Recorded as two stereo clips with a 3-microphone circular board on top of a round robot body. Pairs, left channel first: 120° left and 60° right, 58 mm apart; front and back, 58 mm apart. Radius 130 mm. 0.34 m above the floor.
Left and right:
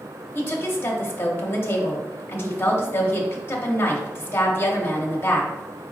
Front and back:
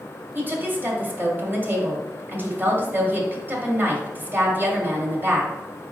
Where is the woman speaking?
140° left, 1.3 m.